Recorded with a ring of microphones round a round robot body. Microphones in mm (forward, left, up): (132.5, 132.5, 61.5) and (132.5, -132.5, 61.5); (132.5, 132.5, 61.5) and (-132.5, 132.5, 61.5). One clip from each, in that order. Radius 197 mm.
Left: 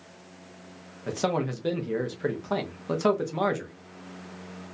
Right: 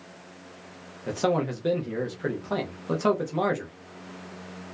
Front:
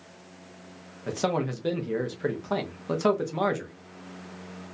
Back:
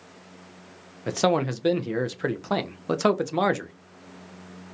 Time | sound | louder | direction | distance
1.1 | a man speaking | right 2 dB, back 5 dB | 170° left | 0.7 m